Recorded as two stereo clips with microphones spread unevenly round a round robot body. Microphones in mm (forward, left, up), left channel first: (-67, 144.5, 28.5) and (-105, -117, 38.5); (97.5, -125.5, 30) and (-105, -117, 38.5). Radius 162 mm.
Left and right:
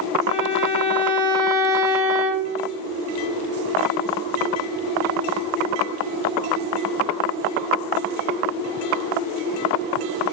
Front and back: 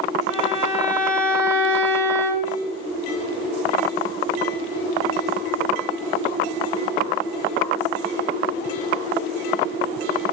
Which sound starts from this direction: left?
A violin, at 0.3 s.